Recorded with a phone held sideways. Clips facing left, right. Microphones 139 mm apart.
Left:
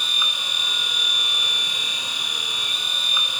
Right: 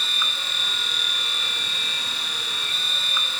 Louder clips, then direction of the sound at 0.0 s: Even; 15° left (ahead or behind).